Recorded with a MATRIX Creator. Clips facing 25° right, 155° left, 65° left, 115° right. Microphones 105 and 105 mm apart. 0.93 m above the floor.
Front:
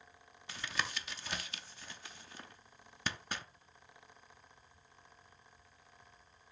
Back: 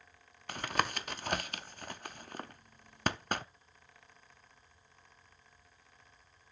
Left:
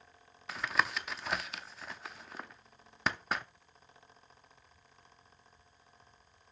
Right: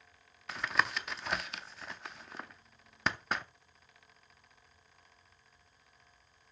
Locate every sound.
0.5 s tapping: 160° left, 0.5 m